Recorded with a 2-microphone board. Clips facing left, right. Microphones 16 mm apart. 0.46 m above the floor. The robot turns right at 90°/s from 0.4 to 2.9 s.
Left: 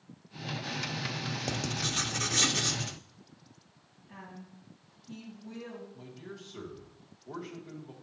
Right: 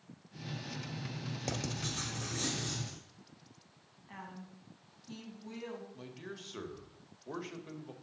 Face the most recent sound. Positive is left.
turn(degrees=-40)  # may be behind; listen again after turning